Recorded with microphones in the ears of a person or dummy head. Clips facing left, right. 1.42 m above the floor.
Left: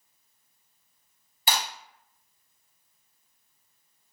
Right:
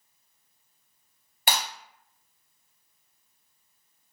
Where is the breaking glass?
50° right (ahead or behind), 2.5 m.